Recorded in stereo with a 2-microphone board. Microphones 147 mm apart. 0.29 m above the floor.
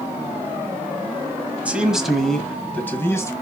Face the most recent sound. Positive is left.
turn(degrees=20)  # may be behind; listen again after turning